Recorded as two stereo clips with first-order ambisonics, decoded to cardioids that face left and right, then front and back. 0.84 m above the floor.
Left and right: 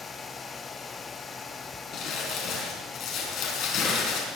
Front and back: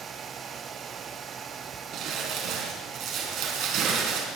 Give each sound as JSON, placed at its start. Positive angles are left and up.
{"t": 1.9, "sound": "crumpling", "azimuth_deg": 135, "distance_m": 4.5}